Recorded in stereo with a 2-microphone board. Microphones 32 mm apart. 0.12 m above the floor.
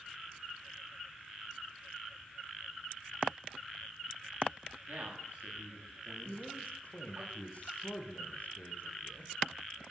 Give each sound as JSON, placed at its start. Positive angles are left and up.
{"t": 4.9, "sound": "a man speaking", "side_deg": -60, "distance_m": 9.5}
{"t": 6.2, "sound": "a man speaking", "side_deg": 45, "distance_m": 6.5}